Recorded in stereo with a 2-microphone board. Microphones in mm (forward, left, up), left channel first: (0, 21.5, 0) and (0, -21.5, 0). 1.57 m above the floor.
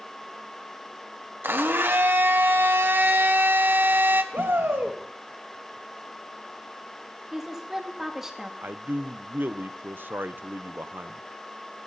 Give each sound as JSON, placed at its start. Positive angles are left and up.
{"t": 1.4, "sound": "a blender", "side_deg": -65, "distance_m": 1.5}
{"t": 4.3, "sound": "a shout", "side_deg": -70, "distance_m": 2.5}
{"t": 7.3, "sound": "a woman speaking", "side_deg": -10, "distance_m": 2.5}
{"t": 8.6, "sound": "a man speaking", "side_deg": -55, "distance_m": 0.8}